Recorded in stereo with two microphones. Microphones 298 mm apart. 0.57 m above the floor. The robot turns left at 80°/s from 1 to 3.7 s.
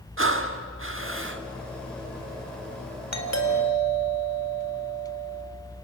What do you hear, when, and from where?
0.2 s breathing: 85° right, 1.4 m; by 1.4 s 115° right, 1.4 m
3.1 s a doorbell: 90° left, 3.5 m; by 5.4 s 40° left, 3.5 m